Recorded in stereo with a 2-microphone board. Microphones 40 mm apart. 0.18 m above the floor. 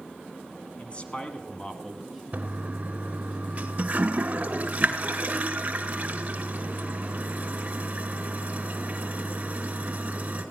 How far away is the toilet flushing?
About 1.2 m.